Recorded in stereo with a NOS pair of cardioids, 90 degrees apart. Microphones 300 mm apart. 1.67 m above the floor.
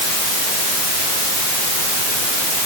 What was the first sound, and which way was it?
Only background noise.